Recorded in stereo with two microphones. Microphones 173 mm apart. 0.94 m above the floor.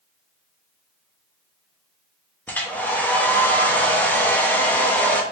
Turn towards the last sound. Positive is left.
turn(degrees=10)  # may be behind; listen again after turning